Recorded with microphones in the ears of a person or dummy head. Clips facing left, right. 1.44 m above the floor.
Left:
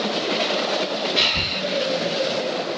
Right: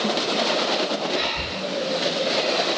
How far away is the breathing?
About 1.8 m.